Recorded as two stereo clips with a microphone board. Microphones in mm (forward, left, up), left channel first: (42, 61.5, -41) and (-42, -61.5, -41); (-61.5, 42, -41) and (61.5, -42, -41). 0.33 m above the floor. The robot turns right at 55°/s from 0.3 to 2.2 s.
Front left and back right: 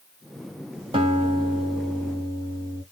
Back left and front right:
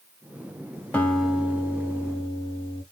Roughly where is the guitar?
Behind right.